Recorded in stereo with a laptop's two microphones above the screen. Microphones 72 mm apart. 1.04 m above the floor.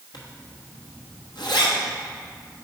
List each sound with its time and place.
0.1 s a zipper: 80° left, 1.2 m